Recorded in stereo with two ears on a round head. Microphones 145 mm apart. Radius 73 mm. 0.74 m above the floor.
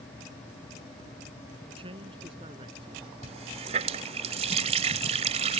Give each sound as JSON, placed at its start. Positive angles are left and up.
{"t": 1.7, "sound": "a man speaking", "side_deg": -30}
{"t": 3.2, "sound": "a running tap", "side_deg": -40}